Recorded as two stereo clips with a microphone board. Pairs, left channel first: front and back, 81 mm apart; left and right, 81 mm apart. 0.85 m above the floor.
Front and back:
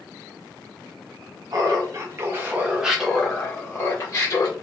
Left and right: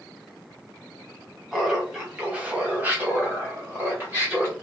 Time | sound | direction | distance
1.5 | laughter | 170° right | 1.2 m